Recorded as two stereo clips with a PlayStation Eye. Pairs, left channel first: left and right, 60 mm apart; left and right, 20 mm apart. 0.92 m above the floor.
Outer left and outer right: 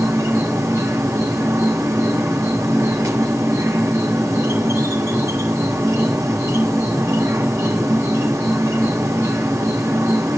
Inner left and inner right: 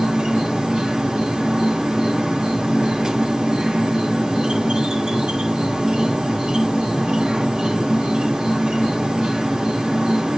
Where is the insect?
60° right (ahead or behind), 2.5 m.